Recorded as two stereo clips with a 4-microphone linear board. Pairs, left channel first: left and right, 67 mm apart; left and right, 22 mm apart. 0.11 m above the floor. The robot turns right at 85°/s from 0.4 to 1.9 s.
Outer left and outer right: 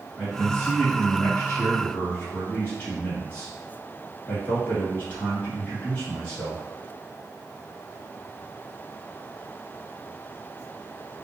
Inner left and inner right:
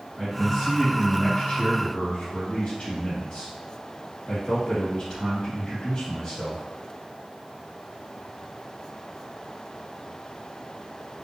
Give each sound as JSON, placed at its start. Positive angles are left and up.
{"t": 0.2, "sound": "a man speaking", "side_deg": -10, "distance_m": 1.4}